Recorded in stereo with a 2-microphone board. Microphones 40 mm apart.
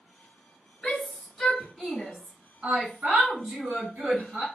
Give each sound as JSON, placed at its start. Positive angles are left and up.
{"t": 0.8, "sound": "a shout", "side_deg": 20, "distance_m": 1.2}